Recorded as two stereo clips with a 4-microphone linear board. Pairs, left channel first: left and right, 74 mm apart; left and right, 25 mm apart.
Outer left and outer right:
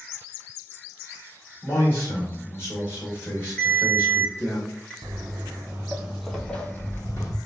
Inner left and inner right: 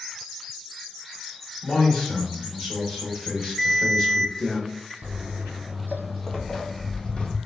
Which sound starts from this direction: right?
Footsteps, at 5.0 s.